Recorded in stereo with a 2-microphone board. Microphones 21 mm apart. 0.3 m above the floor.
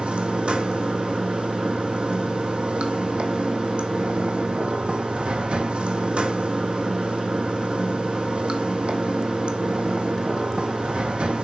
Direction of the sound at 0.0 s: 55° right (ahead or behind).